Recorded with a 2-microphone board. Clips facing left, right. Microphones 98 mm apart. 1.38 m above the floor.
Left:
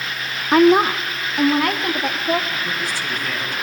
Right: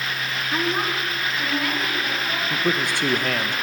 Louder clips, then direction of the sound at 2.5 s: Right 2 dB; 60° right (ahead or behind).